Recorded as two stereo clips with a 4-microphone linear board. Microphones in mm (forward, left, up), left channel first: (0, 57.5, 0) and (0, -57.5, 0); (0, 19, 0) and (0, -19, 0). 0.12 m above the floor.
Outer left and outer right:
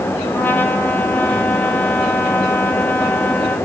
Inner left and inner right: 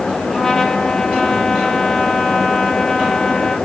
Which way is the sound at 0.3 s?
20° left (ahead or behind).